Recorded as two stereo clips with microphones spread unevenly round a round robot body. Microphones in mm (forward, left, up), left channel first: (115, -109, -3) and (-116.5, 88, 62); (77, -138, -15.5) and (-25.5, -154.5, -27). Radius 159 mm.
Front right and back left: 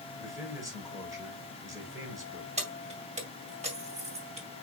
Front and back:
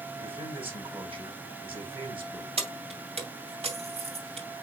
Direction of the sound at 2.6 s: 150° right.